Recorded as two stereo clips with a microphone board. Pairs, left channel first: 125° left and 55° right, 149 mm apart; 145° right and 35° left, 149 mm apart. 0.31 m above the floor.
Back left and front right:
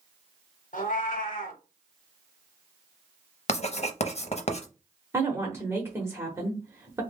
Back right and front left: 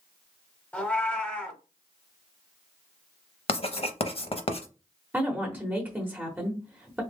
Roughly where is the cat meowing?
Behind left.